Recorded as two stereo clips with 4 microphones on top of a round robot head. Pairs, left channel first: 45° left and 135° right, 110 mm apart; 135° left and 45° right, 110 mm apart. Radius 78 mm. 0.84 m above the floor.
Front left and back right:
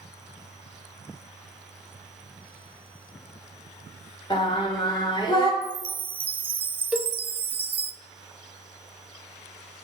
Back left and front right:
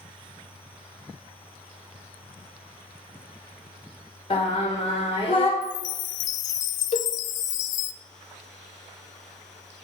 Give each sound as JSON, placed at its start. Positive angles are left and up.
{"t": 4.3, "sound": "singing", "azimuth_deg": 95, "distance_m": 2.5}
{"t": 5.6, "sound": "a chime", "azimuth_deg": 150, "distance_m": 0.5}
{"t": 6.9, "sound": "a cowbell", "azimuth_deg": 145, "distance_m": 1.1}